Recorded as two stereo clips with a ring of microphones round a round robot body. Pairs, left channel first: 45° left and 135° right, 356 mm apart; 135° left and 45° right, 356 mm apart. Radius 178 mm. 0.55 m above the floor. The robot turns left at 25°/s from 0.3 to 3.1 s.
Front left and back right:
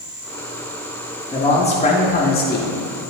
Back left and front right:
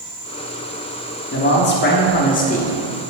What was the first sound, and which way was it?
A man speaking, 115° left.